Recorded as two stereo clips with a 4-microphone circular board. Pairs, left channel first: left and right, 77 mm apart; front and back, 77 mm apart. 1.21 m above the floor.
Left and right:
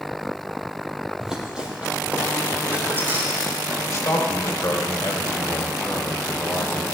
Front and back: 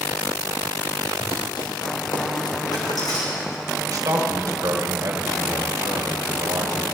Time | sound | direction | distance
1.2 | running footsteps | 5° right | 2.5 m
3.9 | a man speaking | 140° left | 1.5 m